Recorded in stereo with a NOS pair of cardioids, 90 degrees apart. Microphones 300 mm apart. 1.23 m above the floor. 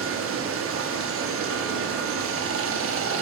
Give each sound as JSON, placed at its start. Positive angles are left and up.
{"t": 0.0, "sound": "running water", "azimuth_deg": -50, "distance_m": 1.1}